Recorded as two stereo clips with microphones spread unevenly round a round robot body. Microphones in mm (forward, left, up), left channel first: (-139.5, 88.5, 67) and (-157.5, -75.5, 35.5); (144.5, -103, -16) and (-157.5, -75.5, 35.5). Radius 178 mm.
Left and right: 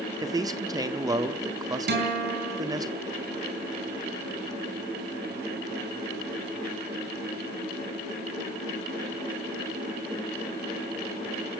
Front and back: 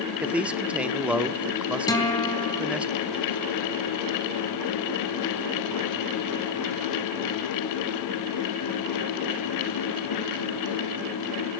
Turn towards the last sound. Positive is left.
turn(degrees=-80)